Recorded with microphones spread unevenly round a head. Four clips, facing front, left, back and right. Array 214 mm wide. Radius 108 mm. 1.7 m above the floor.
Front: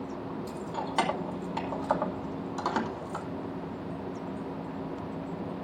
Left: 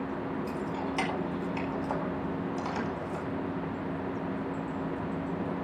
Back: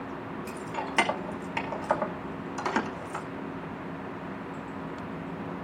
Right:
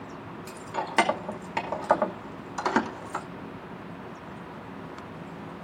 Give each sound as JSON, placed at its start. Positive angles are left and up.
{"t": 0.5, "sound": "keys jangling", "azimuth_deg": -100, "distance_m": 2.5}